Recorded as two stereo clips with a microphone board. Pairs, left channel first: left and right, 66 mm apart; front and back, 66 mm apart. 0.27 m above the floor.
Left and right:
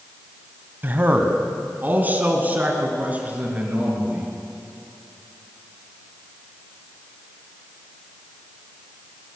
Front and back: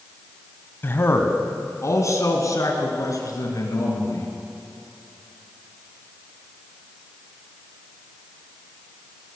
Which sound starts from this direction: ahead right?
A man speaking, at 0.8 s.